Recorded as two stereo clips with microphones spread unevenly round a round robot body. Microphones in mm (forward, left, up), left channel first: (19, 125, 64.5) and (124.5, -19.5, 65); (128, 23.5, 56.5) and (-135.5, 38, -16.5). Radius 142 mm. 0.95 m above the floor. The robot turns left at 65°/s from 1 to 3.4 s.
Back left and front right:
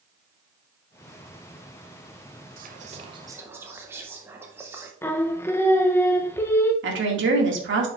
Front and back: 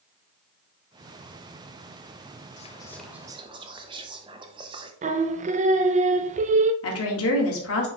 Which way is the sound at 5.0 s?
160° right.